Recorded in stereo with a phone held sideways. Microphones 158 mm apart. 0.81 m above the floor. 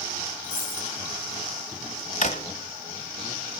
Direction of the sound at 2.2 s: 50° left (ahead or behind).